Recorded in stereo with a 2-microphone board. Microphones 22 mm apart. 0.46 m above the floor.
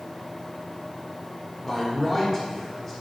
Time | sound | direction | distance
1.6 | a man speaking | 10° left (ahead or behind) | 1.2 m